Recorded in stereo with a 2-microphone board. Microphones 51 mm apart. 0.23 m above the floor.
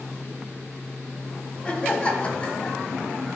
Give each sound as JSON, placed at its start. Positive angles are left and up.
{"t": 1.6, "sound": "laughter", "side_deg": 20, "distance_m": 1.4}